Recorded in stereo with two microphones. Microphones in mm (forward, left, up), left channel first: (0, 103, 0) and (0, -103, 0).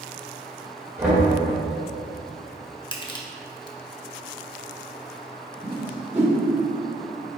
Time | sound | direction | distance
1.0 | knocking | 5° right (ahead or behind) | 1.8 m
2.9 | crushing | 20° left (ahead or behind) | 0.5 m
5.6 | a whoosh | 10° right (ahead or behind) | 0.7 m